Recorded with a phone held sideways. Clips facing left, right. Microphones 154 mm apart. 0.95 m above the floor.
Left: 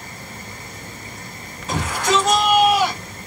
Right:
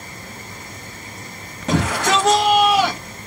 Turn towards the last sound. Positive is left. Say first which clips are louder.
# right 2 dB
turn(degrees=-70)  # may be behind; listen again after turning